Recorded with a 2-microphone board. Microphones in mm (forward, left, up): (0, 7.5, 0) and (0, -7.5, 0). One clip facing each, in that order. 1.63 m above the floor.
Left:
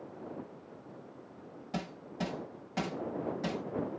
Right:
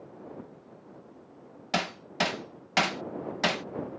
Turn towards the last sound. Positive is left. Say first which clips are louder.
# right 10 dB
turn(degrees=-55)  # may be behind; listen again after turning